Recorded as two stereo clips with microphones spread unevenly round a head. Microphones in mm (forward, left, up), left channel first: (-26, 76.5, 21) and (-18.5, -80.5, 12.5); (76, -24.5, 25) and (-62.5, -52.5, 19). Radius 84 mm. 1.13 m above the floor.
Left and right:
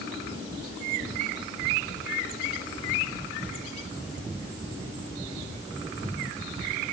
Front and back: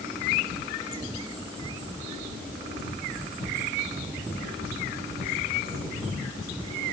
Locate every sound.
Only background noise.